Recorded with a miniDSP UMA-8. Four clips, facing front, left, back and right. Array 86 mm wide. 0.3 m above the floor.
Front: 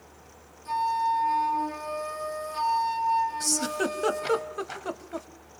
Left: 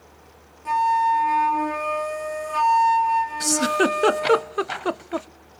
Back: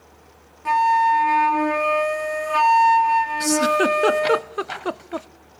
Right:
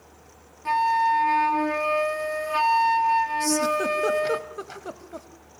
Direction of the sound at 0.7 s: 165° right.